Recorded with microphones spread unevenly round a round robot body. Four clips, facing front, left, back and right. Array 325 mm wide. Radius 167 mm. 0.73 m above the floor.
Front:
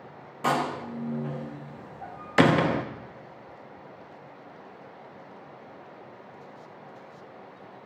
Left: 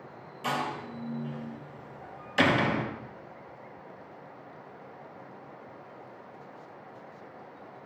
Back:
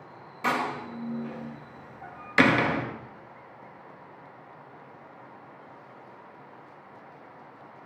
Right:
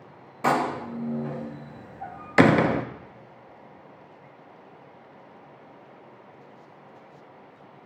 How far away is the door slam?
About 0.5 m.